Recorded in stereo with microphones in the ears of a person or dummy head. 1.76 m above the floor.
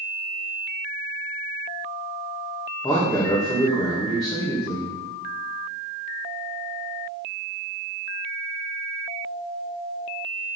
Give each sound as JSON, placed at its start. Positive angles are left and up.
{"t": 2.8, "sound": "a man speaking", "side_deg": 25, "distance_m": 2.5}